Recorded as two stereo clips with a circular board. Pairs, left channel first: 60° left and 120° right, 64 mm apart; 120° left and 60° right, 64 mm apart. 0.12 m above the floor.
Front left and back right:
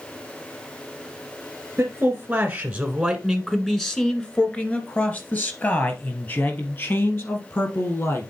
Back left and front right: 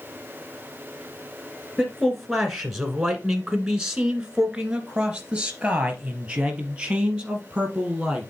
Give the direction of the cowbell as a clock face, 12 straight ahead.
No cowbell in this recording.